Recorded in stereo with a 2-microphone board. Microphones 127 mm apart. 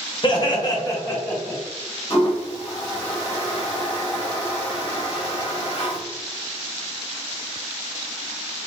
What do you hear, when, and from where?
0.2 s laughter: 40° left (ahead or behind), 1.3 m; by 1.6 s 10° left (ahead or behind), 2.0 m
2.1 s a toilet flushing: 45° left (ahead or behind), 1.6 m